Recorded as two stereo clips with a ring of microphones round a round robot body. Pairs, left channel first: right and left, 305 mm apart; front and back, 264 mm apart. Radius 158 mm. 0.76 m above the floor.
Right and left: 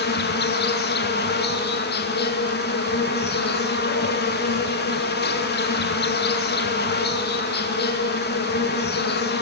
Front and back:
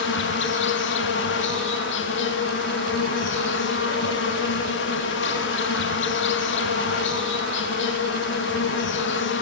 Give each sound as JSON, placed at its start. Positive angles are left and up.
{"t": 0.0, "sound": "an insect", "azimuth_deg": -40, "distance_m": 1.4}